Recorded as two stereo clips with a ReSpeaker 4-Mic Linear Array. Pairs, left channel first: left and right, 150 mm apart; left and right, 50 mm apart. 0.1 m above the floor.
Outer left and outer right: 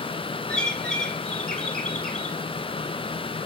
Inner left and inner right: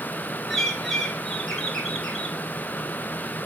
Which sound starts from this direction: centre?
A bird, at 0.5 s.